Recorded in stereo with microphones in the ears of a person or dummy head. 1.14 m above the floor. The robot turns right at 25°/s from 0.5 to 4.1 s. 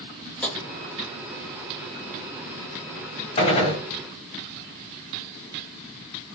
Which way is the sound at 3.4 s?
35° left (ahead or behind).